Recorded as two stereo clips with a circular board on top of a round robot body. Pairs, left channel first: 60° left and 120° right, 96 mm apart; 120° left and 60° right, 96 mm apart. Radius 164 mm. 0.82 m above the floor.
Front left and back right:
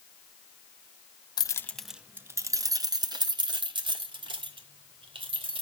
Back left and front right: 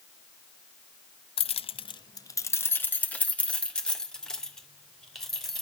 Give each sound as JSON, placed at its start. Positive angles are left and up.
{"t": 1.4, "sound": "keys jangling", "azimuth_deg": 105, "distance_m": 0.6}